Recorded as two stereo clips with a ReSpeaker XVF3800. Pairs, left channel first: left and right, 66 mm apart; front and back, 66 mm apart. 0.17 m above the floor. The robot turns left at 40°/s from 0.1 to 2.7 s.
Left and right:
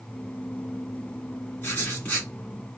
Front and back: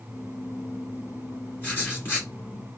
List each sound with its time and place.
1.6 s writing: 55° left, 2 m; by 2.3 s 25° left, 2 m